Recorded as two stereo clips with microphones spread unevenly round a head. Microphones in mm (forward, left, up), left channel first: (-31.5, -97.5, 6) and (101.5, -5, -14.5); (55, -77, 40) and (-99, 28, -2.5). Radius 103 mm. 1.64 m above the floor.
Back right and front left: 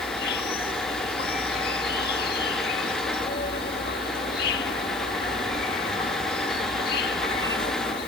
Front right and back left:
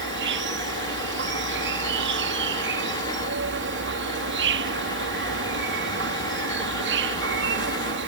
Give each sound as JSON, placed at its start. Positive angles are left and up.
{"t": 0.0, "sound": "an insect", "azimuth_deg": 170}